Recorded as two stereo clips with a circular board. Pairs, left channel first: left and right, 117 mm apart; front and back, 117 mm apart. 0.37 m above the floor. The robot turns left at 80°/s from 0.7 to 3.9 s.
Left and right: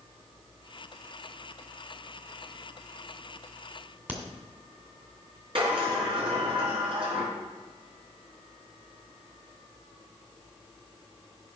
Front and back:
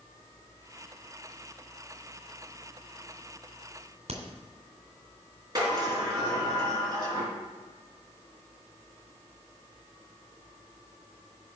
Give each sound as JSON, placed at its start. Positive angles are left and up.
{"t": 4.1, "sound": "a crack", "azimuth_deg": -165, "distance_m": 1.9}
{"t": 5.5, "sound": "a sliding door", "azimuth_deg": -125, "distance_m": 4.0}